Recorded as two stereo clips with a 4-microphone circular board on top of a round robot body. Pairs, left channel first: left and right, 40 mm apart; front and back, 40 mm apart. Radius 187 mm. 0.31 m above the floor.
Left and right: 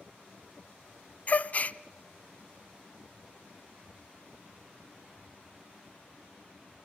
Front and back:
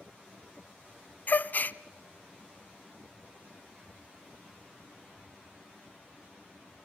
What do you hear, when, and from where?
1.3 s a gasp: 40° left, 0.6 m